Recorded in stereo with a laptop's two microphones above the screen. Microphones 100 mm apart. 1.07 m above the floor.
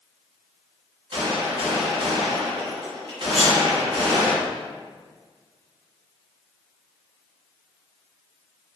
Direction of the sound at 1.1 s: 65° right (ahead or behind).